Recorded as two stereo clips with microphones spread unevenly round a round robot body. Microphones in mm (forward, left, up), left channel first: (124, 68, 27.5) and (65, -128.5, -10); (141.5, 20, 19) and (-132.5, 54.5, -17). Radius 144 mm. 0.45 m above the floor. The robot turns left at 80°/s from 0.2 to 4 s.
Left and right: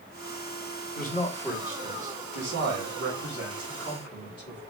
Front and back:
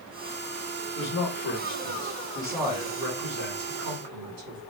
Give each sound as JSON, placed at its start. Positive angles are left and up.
{"t": 0.9, "sound": "a man speaking", "azimuth_deg": 30, "distance_m": 3.0}